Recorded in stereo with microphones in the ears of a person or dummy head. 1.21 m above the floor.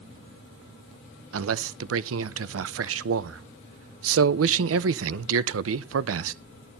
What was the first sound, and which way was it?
A man speaking, 80° right.